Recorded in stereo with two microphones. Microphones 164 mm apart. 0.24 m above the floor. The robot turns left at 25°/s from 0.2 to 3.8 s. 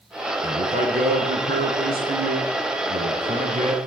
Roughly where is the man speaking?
Ahead right.